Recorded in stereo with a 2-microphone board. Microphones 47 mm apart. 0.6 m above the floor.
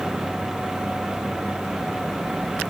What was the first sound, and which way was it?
Only background noise.